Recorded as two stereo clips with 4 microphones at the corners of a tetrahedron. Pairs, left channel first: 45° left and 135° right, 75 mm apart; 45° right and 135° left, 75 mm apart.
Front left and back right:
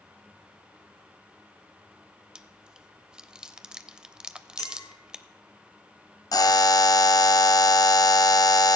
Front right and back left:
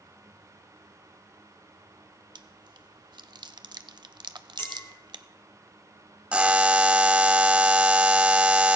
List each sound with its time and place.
2.4 s chewing: 145° left, 0.6 m
4.6 s a clink: 10° left, 2.5 m
6.3 s a buzzer: 65° left, 0.6 m